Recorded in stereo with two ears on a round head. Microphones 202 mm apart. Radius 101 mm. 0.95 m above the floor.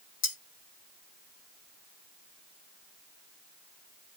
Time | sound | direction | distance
0.2 | cutlery clinking | 75° left (ahead or behind) | 1.7 m